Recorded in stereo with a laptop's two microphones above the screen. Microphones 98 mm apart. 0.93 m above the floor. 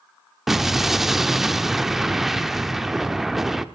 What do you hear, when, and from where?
0.5 s an explosion: 5° right (ahead or behind), 0.6 m